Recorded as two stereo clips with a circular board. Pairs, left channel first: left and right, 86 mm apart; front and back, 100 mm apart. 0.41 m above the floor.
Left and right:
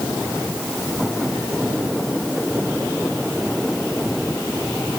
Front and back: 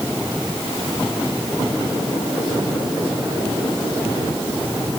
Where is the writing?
No writing in this recording.